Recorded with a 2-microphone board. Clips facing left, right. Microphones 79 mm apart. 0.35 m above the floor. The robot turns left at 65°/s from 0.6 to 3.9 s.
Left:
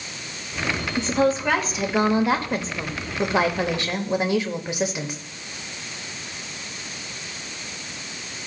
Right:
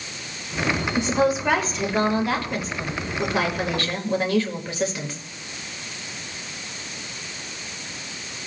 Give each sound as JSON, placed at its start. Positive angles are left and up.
{"t": 1.0, "sound": "a woman speaking", "azimuth_deg": -140, "distance_m": 0.9}